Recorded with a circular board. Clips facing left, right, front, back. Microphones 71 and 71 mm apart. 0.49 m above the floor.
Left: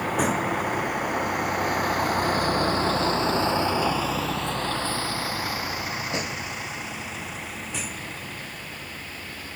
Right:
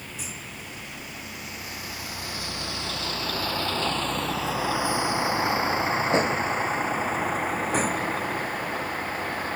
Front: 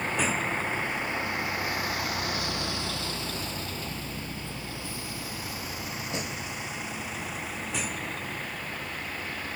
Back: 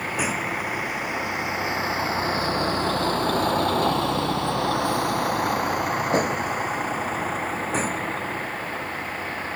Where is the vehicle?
100° left; by 9.6 s 125° right.